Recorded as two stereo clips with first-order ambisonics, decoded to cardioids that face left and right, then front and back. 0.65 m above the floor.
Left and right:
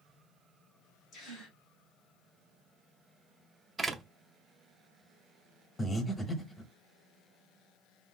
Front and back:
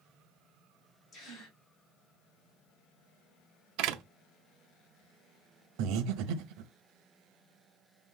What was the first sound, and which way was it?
A gasp, 45° left.